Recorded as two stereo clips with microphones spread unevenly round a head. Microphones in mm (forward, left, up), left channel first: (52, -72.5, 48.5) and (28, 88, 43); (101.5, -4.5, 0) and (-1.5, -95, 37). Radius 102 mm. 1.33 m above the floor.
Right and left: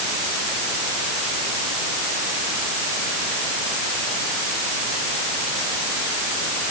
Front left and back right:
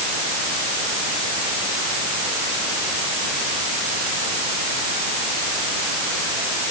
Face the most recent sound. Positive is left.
No sound to turn to.